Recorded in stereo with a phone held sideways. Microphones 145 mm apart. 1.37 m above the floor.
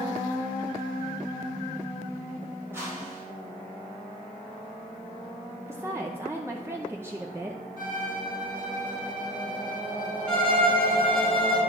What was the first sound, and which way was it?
A whoosh, 20° right (ahead or behind).